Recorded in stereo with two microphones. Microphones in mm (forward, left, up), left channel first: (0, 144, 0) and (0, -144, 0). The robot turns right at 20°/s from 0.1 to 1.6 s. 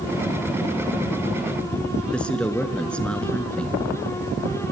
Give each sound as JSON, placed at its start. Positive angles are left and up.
{"t": 2.1, "sound": "a man speaking", "side_deg": 5, "distance_m": 1.2}